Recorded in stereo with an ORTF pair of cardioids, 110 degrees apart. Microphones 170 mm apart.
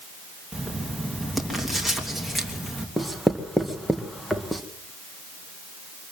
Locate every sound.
0.5 s writing: straight ahead, 3 m
3.0 s writing: straight ahead, 1.9 m